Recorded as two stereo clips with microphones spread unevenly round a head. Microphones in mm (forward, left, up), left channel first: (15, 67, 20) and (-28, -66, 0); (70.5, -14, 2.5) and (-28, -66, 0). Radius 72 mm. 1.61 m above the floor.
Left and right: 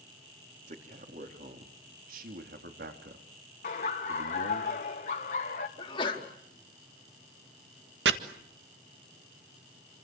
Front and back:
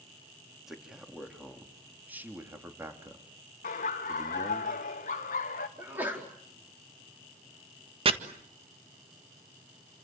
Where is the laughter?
35° left, 1.7 m.